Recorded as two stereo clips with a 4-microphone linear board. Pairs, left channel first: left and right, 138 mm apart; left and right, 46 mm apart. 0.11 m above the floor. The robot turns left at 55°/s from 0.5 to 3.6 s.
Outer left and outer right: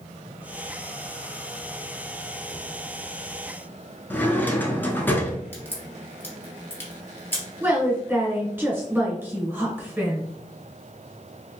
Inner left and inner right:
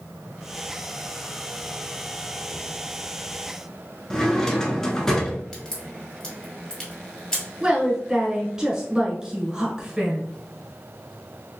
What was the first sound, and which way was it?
A drawer, 15° left (ahead or behind).